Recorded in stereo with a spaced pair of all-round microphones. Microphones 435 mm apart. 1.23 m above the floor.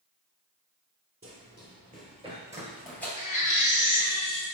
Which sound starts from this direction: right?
Running footsteps, at 1.2 s.